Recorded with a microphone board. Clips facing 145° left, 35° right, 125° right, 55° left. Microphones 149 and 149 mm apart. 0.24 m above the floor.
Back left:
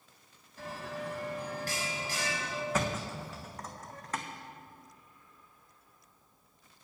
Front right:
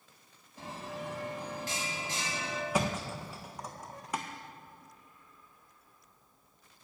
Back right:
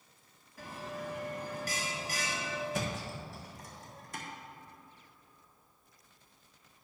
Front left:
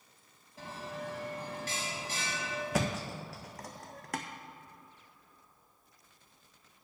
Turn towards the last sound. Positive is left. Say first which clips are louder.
# front right 2 dB, front left 3 dB
turn(degrees=45)